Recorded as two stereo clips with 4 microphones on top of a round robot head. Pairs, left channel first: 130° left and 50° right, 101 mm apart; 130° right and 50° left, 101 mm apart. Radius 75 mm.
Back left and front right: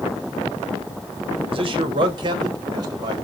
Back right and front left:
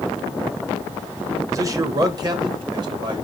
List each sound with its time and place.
1.5 s a man speaking: 15° right, 1.1 m; by 3.1 s 5° left, 2 m